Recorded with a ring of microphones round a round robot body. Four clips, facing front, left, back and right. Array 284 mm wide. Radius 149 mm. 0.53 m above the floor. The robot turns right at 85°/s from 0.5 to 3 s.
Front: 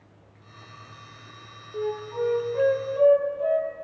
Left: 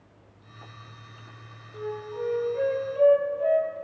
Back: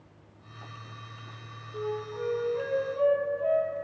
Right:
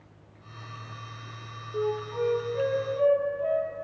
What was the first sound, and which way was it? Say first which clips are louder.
A flute: right 4 dB, front 5 dB; 65° right.